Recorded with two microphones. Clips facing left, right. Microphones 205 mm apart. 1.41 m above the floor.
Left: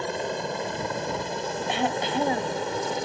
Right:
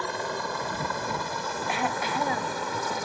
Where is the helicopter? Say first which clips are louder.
Left 3 dB; 20° left (ahead or behind); by 3.1 s 25° left (ahead or behind).